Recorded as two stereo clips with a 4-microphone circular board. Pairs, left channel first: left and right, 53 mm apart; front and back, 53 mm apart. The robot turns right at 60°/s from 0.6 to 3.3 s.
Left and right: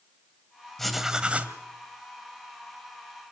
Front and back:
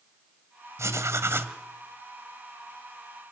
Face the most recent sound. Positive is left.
turn(degrees=-35)